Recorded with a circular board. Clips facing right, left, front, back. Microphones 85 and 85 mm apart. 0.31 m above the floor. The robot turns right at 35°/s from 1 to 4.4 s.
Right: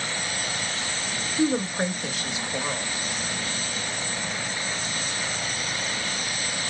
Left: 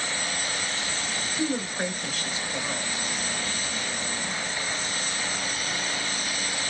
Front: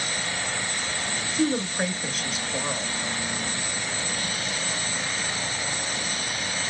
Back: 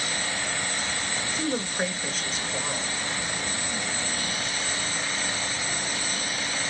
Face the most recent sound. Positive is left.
turn(degrees=5)